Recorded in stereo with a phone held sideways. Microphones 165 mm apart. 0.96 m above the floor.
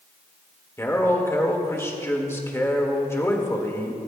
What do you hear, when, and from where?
0.8 s a man speaking: 15° left (ahead or behind), 1.8 m